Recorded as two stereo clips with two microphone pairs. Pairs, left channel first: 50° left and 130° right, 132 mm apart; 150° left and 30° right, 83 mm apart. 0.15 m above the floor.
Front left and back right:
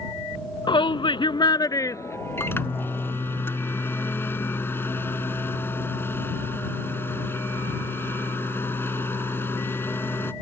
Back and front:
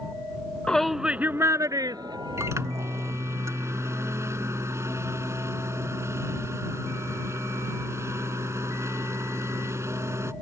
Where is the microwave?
10° right.